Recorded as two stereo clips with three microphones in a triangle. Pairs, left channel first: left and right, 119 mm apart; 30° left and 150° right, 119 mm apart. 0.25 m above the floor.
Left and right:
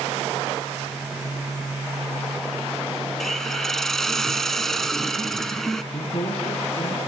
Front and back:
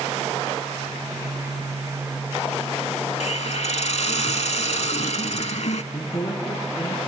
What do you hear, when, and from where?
3.2 s a hiss: 5° left, 0.6 m
5.9 s a man speaking: 80° left, 1.9 m